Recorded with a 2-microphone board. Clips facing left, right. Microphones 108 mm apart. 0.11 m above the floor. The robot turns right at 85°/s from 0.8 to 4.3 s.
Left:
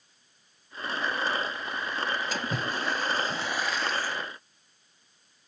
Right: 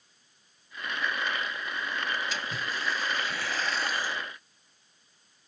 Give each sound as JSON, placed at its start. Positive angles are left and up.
{"t": 2.3, "sound": "a splash", "azimuth_deg": 60, "distance_m": 0.8}